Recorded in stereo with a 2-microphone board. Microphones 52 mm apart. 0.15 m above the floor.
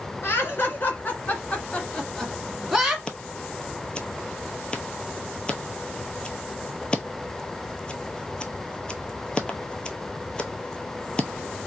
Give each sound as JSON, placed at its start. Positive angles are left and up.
{"t": 0.2, "sound": "laughter", "side_deg": 50, "distance_m": 1.6}
{"t": 3.1, "sound": "scissors", "side_deg": 20, "distance_m": 0.7}